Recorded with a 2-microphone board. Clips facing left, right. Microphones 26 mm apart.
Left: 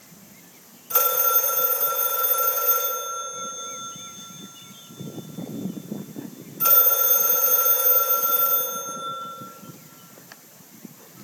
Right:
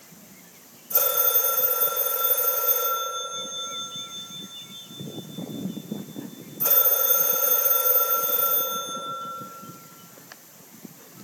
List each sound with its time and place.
0.9 s a phone ringing: 70° left (ahead or behind), 3 m